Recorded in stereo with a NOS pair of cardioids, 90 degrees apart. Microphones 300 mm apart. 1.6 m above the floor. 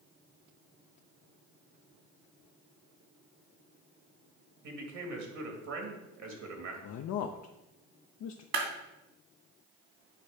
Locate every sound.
4.6 s a man speaking: 60° right, 2.5 m
6.8 s a man speaking: 55° left, 0.6 m
8.5 s a clap: 55° right, 2.5 m